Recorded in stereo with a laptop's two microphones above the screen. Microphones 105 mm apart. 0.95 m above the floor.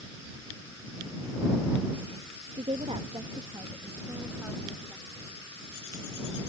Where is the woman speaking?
80° right; by 5.2 s 5° right (ahead or behind).